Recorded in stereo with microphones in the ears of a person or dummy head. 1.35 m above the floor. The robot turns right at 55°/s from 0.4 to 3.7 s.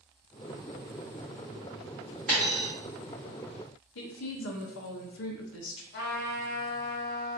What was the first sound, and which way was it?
A dropped coin, 5° left (ahead or behind).